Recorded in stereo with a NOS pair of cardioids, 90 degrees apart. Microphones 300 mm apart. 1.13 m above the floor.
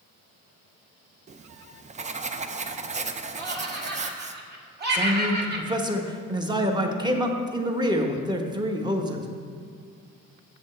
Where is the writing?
25° right, 0.5 m.